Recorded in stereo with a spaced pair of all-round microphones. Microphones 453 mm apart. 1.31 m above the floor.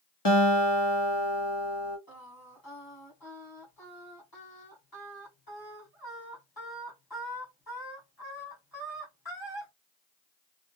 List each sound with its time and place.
0.2 s a guitar: 60° left (ahead or behind), 1.2 m
2.1 s singing: 50° left (ahead or behind), 1.8 m